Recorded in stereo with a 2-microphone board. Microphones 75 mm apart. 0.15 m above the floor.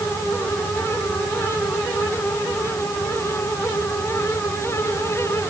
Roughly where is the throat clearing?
I don't hear throat clearing.